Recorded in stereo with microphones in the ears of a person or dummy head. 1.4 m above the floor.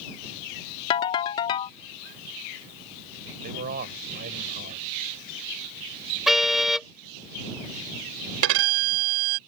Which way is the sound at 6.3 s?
Centre (ahead or behind).